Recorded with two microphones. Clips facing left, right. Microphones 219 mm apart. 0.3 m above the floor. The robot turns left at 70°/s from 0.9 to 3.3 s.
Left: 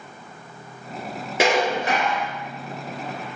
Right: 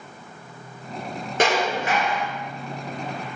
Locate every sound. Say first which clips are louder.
1.4 s dishes clattering: left 2 dB; 175° left, 2.5 m; by 2.2 s 115° left, 2.5 m